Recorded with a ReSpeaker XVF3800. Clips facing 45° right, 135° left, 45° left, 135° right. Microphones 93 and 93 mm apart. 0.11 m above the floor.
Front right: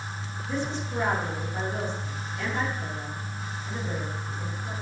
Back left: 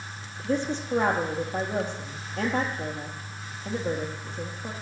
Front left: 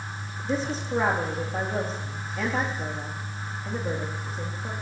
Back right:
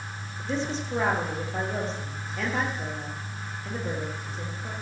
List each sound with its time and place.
0.4 s a woman speaking: 130° left, 3 m